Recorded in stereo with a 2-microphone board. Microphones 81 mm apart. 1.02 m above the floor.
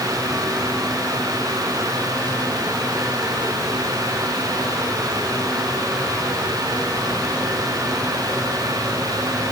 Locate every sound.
Only background noise.